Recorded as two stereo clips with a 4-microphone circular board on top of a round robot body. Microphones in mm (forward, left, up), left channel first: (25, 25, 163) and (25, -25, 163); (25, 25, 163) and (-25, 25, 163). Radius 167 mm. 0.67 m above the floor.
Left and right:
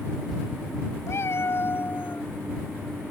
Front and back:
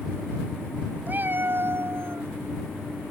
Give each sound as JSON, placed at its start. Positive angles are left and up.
{"t": 1.1, "sound": "a cat meowing", "azimuth_deg": 125}